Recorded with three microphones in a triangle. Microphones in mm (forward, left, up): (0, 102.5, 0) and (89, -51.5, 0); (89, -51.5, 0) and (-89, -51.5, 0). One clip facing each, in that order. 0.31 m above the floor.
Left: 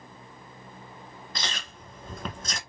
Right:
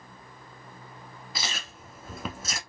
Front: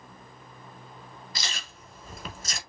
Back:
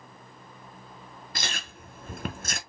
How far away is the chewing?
About 0.8 m.